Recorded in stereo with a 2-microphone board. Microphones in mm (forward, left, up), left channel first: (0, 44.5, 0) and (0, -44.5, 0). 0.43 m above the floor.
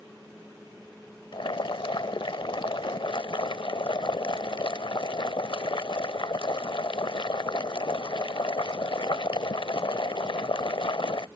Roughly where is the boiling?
Left.